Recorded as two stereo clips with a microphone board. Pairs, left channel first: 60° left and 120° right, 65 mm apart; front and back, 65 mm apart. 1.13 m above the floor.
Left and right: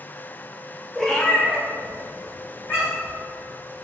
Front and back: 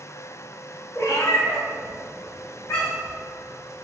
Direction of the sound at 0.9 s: 25° right.